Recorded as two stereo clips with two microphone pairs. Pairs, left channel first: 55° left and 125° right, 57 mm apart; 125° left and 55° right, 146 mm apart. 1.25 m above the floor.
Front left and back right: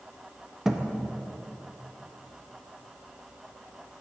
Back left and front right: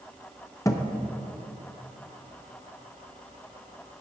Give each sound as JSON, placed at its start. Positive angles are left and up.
{"t": 0.7, "sound": "a thud", "azimuth_deg": 150, "distance_m": 0.5}